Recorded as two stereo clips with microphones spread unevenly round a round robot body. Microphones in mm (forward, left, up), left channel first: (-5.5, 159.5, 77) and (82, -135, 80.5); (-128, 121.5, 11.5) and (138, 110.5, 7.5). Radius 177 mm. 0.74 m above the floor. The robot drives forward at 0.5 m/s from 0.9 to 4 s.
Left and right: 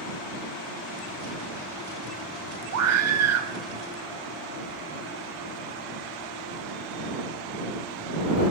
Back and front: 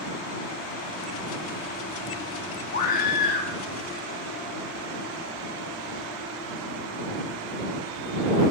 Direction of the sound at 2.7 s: 115° right.